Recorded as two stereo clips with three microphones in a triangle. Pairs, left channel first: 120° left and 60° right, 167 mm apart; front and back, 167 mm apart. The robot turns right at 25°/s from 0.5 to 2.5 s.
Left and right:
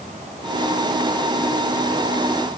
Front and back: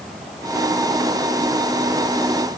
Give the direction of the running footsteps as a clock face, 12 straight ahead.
I don't hear running footsteps.